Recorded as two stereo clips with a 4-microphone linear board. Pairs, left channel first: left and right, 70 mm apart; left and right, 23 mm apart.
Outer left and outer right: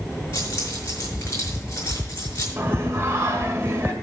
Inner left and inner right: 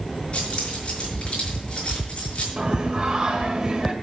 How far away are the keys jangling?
About 6 m.